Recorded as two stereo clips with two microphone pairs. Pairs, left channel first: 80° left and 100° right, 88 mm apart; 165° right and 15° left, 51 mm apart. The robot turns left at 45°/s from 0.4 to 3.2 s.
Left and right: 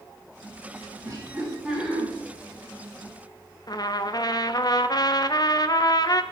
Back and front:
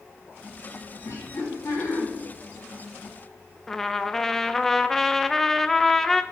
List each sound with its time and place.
1.0 s laughter: 150° right, 6 m; by 2.0 s 165° left, 6 m
3.7 s a trumpet: 105° left, 0.7 m